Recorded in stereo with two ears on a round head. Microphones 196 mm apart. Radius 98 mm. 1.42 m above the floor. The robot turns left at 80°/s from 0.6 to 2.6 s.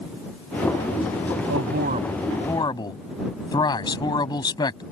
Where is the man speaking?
110° right; by 4.8 s 160° left.